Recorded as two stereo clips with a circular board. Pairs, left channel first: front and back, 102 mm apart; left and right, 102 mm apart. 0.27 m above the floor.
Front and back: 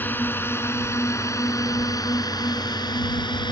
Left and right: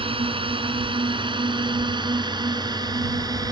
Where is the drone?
70° right; by 3.5 s 40° right.